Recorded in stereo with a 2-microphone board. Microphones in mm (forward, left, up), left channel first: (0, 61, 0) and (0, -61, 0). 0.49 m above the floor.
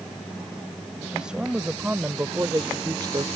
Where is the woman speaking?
5° right (ahead or behind); by 3.2 s 40° right (ahead or behind).